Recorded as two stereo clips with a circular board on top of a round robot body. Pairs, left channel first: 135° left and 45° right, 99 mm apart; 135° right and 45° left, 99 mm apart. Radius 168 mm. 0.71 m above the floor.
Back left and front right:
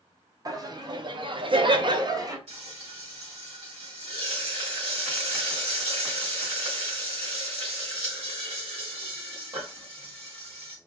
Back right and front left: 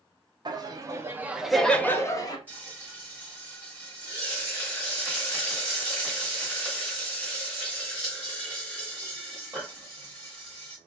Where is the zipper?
No zipper in this recording.